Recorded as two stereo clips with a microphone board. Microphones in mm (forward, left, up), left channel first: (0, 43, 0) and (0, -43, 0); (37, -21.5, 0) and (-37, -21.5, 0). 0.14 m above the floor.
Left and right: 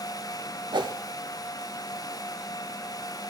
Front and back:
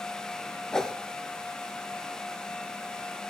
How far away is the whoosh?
About 0.7 m.